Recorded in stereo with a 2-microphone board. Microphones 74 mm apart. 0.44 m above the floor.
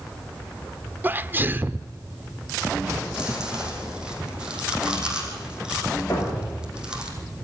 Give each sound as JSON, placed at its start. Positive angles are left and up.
{"t": 1.0, "sound": "a sneeze", "side_deg": -25, "distance_m": 0.8}
{"t": 3.1, "sound": "chewing", "side_deg": -10, "distance_m": 4.0}
{"t": 6.1, "sound": "a thud", "side_deg": 35, "distance_m": 7.5}